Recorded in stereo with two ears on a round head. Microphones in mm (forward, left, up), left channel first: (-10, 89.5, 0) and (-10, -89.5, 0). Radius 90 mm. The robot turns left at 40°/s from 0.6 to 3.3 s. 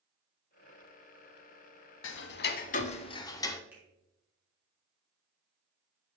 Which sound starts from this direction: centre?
A finger snap, at 3.7 s.